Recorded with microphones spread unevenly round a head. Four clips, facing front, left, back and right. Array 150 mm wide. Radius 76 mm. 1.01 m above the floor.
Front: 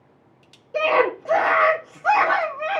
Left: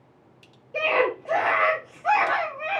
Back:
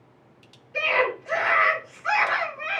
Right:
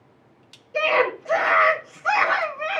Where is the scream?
15° left, 2.5 m.